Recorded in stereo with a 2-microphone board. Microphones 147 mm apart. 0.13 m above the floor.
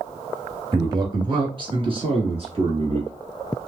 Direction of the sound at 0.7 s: 25° right (ahead or behind).